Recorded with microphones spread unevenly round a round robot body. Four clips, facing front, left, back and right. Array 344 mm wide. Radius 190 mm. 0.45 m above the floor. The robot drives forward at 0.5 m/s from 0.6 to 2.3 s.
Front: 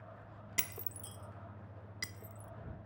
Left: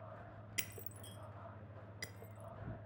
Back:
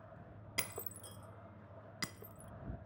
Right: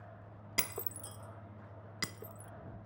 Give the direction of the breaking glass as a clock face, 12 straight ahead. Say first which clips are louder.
Right 12 dB, back 2 dB; 3 o'clock.